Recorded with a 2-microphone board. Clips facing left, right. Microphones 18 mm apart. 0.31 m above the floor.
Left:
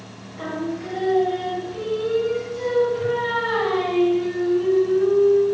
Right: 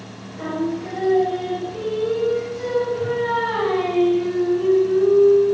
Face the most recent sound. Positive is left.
turn(degrees=10)  # may be behind; listen again after turning